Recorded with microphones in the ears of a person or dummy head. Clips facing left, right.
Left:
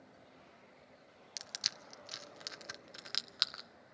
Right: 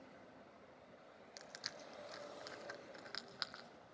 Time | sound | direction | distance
1.4 | crushing | 50° left (ahead or behind) | 0.8 m